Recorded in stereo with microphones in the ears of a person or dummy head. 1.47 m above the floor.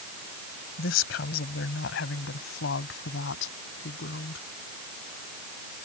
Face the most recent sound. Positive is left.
turn(degrees=85)